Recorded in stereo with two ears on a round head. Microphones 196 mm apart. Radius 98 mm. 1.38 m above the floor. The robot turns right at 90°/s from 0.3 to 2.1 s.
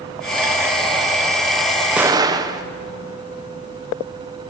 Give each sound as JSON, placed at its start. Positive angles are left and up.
{"t": 2.0, "sound": "an explosion", "side_deg": -5, "distance_m": 0.6}